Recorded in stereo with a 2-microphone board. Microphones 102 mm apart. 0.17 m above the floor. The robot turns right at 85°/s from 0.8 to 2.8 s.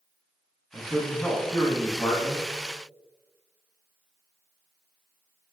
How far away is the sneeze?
I don't hear a sneeze.